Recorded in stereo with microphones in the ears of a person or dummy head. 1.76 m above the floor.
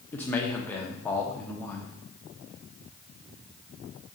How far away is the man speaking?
About 0.8 m.